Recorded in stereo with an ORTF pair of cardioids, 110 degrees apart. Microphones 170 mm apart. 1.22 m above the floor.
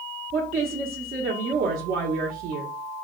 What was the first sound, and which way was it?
A woman speaking, 65° right.